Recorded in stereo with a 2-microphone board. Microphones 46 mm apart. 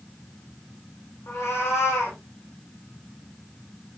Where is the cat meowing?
85° left, 4.5 m.